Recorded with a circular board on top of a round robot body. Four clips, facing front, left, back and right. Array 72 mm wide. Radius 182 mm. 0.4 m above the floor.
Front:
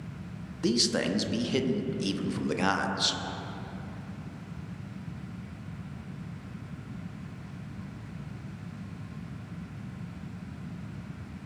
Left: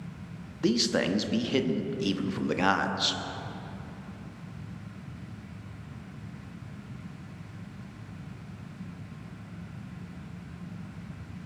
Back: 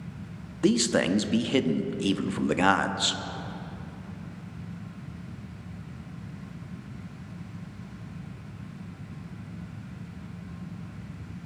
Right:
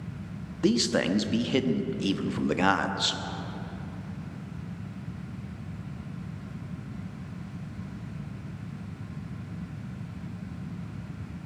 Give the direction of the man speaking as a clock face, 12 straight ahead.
6 o'clock.